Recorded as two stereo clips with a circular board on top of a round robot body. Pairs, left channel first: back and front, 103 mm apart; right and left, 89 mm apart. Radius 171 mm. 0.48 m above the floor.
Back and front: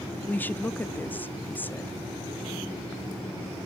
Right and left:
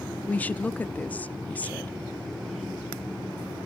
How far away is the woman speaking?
About 0.7 m.